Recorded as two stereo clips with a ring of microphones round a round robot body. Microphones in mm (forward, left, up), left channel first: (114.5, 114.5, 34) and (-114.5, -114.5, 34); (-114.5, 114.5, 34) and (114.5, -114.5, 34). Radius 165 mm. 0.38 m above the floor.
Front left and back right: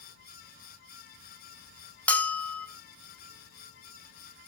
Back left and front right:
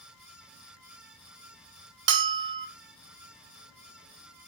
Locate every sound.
2.1 s a bell: 40° right, 0.8 m